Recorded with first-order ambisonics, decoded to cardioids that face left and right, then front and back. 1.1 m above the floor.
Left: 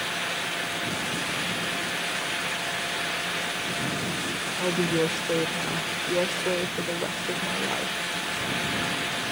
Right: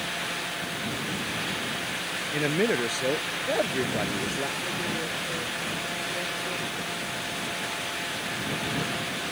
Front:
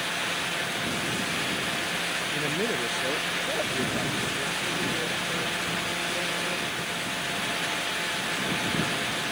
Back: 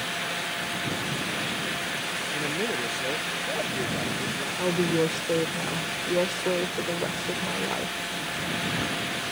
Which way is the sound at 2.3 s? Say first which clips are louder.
Right 3 dB, front 1 dB; 85° right.